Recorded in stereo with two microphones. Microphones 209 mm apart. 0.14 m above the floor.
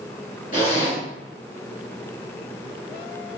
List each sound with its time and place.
0.5 s a zipper: 40° left (ahead or behind), 1.4 m